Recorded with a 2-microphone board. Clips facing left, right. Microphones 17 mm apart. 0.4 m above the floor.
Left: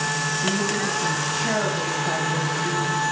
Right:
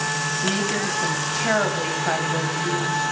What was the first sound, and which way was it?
A woman speaking, 35° right (ahead or behind).